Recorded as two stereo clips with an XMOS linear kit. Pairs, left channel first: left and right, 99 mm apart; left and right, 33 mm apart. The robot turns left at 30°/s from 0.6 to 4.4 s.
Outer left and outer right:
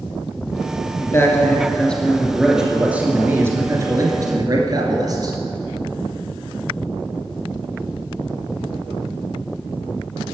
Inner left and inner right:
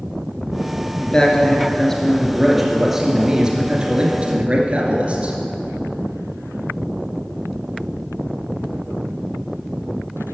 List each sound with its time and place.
1.0 s a man speaking: 40° left, 2 m; by 5.3 s 60° right, 2 m